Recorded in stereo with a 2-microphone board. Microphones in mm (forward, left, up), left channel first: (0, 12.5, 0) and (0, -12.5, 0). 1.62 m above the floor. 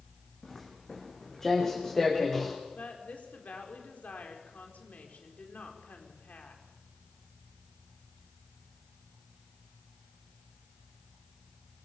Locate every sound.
0.4 s footsteps: 15° left (ahead or behind), 6 m
2.7 s a woman speaking: 85° left, 5 m